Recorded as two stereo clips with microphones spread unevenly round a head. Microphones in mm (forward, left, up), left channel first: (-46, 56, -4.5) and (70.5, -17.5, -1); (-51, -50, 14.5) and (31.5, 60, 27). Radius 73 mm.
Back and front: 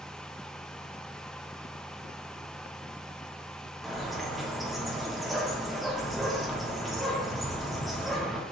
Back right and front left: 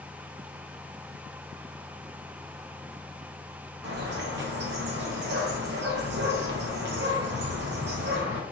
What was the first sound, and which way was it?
A bird, 55° left.